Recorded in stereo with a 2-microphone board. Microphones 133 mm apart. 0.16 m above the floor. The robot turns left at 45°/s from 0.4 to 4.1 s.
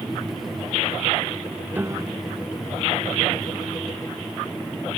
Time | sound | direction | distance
1.7 | a piano | 15° right (ahead or behind) | ?